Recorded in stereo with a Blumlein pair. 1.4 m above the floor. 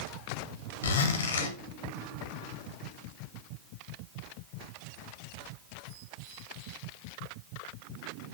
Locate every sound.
0.8 s a zipper: 65° left, 1.3 m